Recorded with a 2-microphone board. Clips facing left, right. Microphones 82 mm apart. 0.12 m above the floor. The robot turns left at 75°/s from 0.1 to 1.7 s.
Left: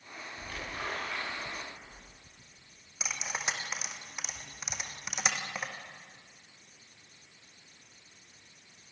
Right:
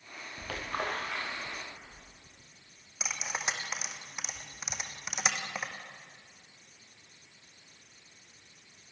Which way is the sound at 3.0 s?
5° right (ahead or behind).